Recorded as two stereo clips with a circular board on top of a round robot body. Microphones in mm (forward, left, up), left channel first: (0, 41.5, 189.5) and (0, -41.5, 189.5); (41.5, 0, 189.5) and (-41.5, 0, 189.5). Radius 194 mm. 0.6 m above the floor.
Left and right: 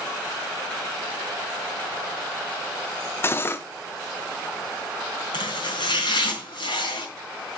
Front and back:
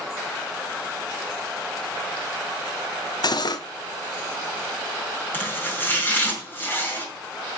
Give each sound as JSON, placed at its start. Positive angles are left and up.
{"t": 3.2, "sound": "cutlery clinking", "azimuth_deg": 30, "distance_m": 0.8}
{"t": 5.3, "sound": "chopping", "azimuth_deg": 65, "distance_m": 3.5}